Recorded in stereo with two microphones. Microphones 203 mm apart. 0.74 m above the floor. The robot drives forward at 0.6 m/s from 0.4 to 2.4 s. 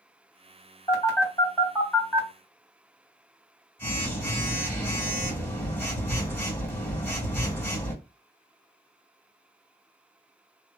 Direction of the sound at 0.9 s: 15° left (ahead or behind).